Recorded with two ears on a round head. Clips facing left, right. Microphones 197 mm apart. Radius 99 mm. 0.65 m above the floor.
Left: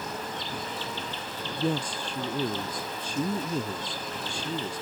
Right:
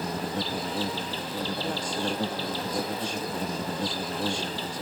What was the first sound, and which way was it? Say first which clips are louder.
An insect: right 5 dB; 35° right (ahead or behind).